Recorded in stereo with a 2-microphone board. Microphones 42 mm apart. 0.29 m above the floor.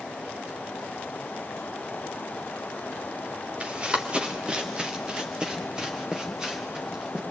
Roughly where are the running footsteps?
Right.